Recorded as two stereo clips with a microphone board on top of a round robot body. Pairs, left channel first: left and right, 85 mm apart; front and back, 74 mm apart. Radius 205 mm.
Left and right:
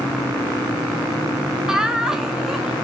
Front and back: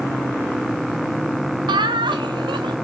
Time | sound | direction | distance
1.7 | laughter | 175° right | 0.6 m